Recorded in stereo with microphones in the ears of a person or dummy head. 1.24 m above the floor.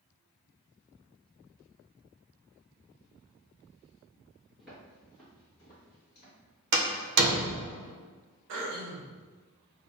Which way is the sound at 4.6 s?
5° right (ahead or behind).